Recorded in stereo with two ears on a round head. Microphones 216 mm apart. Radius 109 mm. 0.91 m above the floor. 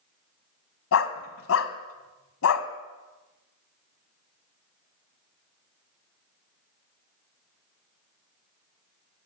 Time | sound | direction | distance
0.9 | a dog barking | 60° left (ahead or behind) | 1.6 m